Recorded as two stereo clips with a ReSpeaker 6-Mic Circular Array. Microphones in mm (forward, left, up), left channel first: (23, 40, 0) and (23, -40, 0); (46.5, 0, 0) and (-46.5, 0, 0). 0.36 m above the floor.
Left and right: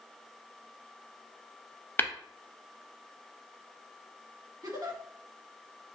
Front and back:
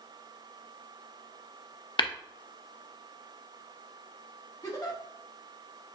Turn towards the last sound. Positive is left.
turn(degrees=-50)